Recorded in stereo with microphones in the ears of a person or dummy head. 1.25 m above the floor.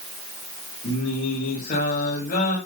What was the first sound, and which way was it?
Singing, 55° left (ahead or behind).